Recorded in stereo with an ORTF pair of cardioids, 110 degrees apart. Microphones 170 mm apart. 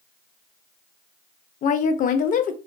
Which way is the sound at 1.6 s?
55° left.